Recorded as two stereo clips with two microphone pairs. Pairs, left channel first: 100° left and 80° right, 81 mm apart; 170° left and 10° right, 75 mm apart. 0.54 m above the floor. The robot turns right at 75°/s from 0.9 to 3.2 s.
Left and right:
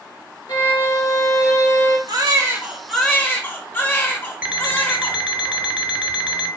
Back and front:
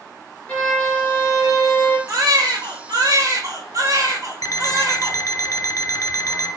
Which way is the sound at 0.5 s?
100° left.